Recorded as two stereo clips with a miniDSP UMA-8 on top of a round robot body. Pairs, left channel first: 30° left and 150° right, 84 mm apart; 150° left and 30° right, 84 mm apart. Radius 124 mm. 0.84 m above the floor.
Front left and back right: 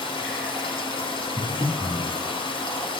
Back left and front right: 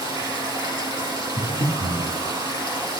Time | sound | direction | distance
0.0 | running water | 10° left | 3.5 m
1.4 | breathing | 85° right | 2.0 m